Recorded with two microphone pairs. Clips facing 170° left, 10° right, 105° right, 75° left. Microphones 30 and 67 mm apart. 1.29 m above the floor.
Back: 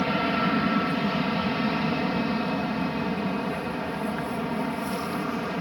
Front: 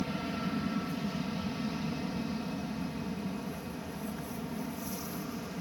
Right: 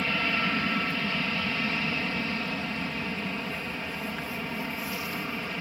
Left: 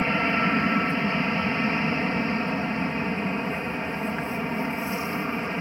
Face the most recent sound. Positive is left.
turn(degrees=135)